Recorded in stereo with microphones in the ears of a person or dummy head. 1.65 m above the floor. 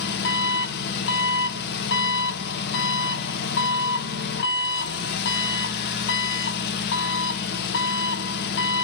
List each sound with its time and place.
0.0 s an engine running: 55° left (ahead or behind), 0.8 m